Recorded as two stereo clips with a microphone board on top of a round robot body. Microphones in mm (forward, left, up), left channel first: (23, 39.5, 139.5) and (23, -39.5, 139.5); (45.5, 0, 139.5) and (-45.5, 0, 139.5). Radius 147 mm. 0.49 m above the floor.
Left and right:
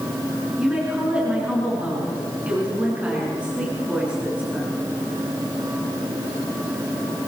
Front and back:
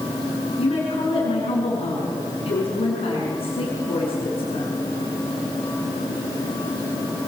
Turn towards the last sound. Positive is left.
turn(degrees=-15)